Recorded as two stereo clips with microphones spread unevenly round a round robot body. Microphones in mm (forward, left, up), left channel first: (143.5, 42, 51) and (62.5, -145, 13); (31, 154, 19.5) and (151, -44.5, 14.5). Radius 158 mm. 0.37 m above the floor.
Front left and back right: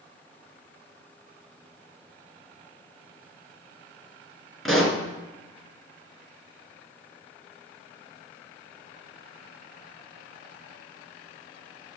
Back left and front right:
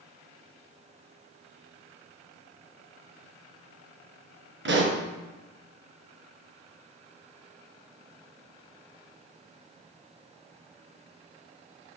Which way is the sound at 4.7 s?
25° right.